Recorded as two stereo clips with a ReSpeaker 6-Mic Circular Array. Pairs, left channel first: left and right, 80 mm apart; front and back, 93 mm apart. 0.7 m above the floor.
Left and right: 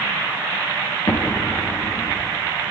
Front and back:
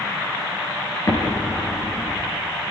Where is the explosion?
50° left, 5.5 m.